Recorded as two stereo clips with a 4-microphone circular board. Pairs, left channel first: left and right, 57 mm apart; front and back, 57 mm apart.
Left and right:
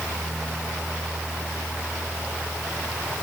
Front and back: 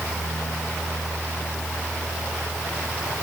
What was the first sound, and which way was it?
Only background noise.